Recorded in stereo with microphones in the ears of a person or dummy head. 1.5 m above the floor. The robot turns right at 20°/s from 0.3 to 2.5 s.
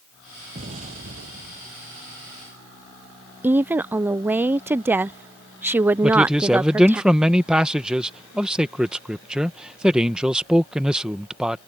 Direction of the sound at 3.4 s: 15° right (ahead or behind).